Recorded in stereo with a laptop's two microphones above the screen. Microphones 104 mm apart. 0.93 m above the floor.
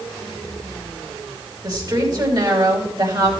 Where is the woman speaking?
45° right (ahead or behind), 4.5 m.